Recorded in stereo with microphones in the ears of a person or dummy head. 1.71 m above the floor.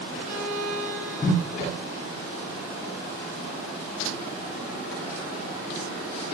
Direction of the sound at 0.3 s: 80° right.